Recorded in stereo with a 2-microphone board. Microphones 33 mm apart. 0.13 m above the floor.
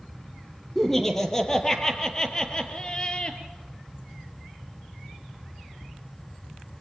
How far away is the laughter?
About 4 m.